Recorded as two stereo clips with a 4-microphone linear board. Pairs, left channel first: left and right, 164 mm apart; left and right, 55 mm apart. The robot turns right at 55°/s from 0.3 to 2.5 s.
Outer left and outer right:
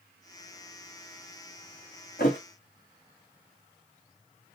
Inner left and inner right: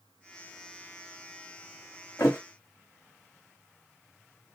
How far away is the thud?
About 1.8 m.